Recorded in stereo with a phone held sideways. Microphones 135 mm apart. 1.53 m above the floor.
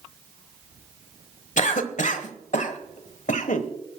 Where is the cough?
65° left (ahead or behind), 1.3 m.